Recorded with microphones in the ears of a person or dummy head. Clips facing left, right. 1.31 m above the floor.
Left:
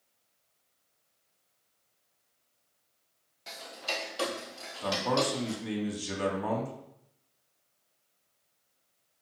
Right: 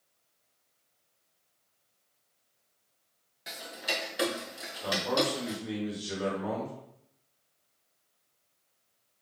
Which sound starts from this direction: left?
A man speaking, at 4.8 s.